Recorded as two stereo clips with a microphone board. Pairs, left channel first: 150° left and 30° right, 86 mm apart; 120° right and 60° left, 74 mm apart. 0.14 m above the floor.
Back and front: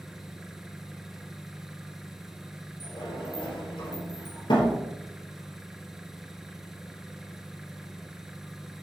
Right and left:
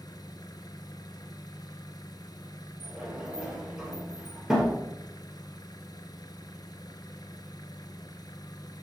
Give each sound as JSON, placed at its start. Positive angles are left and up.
{"t": 0.0, "sound": "an engine running", "azimuth_deg": -115, "distance_m": 0.7}
{"t": 2.8, "sound": "a sliding door", "azimuth_deg": 140, "distance_m": 2.5}